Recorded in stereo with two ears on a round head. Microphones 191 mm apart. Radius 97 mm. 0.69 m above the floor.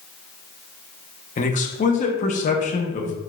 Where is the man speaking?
35° left (ahead or behind), 0.6 m.